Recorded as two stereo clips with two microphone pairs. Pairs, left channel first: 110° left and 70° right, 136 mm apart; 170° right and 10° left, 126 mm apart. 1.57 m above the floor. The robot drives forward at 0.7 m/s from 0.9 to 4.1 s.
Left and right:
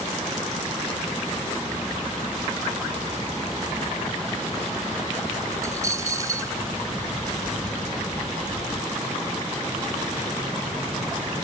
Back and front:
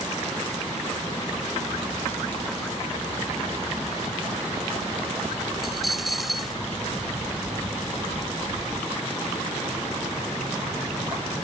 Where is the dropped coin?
80° right.